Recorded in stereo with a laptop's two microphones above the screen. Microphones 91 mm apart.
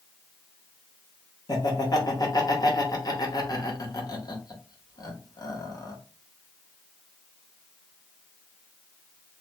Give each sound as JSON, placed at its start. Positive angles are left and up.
{"t": 1.5, "sound": "laughter", "side_deg": 45, "distance_m": 0.7}